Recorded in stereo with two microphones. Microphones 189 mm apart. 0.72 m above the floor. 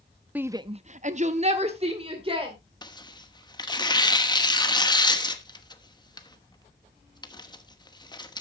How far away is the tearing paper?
About 1.0 m.